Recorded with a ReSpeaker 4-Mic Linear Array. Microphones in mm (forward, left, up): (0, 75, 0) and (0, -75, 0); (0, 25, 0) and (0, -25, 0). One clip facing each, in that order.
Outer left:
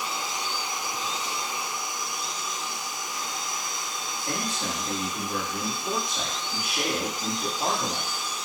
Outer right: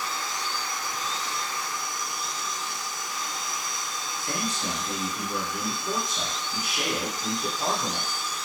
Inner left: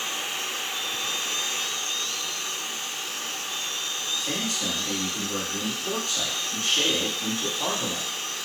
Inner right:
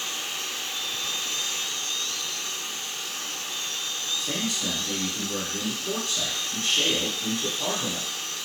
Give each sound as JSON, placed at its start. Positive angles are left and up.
{"t": 4.2, "sound": "a man speaking", "side_deg": 60, "distance_m": 1.8}